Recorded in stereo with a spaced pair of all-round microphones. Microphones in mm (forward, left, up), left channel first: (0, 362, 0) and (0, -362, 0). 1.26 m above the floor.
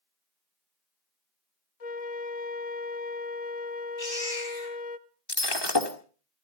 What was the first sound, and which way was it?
A flute, 55° left (ahead or behind).